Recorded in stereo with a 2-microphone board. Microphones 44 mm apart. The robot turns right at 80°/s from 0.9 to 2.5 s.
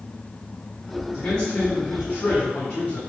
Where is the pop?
I don't hear a pop.